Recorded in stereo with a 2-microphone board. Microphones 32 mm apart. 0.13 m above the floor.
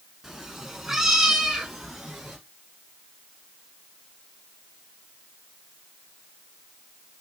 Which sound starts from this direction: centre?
A cat meowing, at 0.2 s.